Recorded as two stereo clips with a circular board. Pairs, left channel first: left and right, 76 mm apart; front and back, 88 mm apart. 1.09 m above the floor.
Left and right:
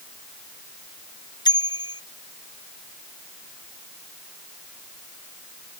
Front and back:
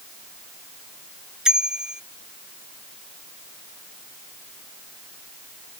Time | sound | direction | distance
1.4 | a bicycle bell | 95° left | ?